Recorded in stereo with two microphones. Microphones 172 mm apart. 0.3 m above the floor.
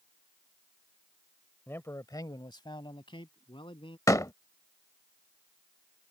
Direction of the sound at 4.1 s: 20° left (ahead or behind).